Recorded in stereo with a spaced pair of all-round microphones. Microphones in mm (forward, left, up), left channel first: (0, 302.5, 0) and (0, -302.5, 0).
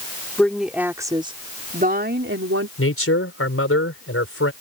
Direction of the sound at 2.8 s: 20° left (ahead or behind).